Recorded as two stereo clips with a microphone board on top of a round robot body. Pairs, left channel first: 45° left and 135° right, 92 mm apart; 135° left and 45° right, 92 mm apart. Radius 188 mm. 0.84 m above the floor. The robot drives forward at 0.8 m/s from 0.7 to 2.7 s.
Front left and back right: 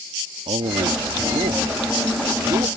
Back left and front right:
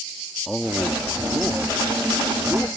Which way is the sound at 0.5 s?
135° right.